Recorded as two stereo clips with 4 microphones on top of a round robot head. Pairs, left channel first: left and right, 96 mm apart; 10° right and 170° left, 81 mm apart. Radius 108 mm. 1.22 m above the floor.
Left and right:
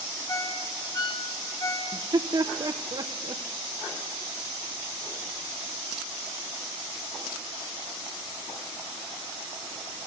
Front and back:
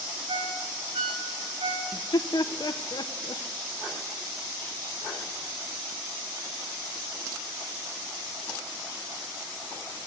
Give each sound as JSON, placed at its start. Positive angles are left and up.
{"t": 0.3, "sound": "a ringtone", "azimuth_deg": 150, "distance_m": 5.5}
{"t": 1.9, "sound": "laughter", "azimuth_deg": -50, "distance_m": 1.3}